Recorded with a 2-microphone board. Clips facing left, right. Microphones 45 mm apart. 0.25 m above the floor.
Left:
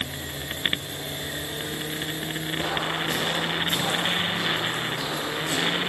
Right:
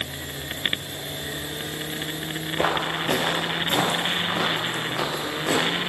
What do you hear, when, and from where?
2.6 s footsteps: 45° right (ahead or behind), 3.5 m; by 5.8 s 85° right, 4 m